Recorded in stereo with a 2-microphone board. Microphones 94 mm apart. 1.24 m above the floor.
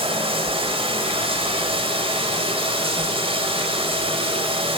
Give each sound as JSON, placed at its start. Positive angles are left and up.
{"t": 0.0, "sound": "running water", "side_deg": -85, "distance_m": 6.5}